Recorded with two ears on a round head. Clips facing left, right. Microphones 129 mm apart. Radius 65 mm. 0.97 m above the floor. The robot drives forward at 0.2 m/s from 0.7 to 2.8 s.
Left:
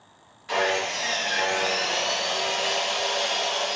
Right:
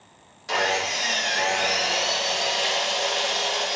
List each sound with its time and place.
0.5 s sawing: 45° right (ahead or behind), 0.7 m; by 3.8 s 40° right (ahead or behind), 0.8 m